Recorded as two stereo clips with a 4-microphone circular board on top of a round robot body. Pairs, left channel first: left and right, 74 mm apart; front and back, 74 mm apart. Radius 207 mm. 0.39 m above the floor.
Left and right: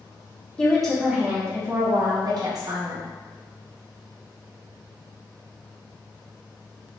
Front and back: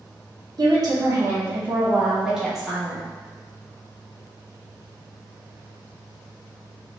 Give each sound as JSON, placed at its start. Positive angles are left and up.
{"t": 0.6, "sound": "a woman speaking", "azimuth_deg": 170, "distance_m": 1.0}